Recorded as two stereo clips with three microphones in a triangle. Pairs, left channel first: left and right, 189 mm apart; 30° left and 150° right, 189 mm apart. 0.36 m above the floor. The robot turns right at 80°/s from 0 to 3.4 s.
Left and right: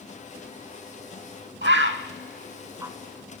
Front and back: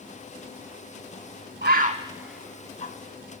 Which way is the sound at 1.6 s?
120° right.